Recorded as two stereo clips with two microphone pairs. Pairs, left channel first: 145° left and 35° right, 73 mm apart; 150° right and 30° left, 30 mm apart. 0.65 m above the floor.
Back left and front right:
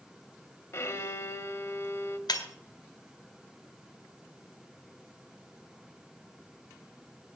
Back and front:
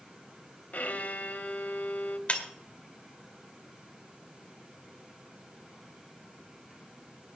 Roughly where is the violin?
Behind.